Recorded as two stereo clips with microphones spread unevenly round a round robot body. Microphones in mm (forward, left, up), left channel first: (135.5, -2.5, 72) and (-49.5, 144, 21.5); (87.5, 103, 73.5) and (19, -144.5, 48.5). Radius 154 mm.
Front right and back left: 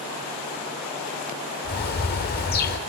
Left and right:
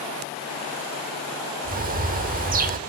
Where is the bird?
55° right, 0.6 m.